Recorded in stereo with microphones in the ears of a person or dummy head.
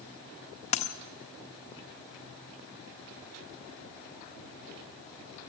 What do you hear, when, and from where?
0.7 s a dropped coin: 30° left (ahead or behind), 1.2 m